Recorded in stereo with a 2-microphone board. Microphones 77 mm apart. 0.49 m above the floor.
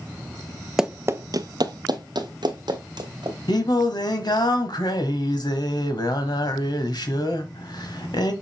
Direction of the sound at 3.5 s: 65° left (ahead or behind).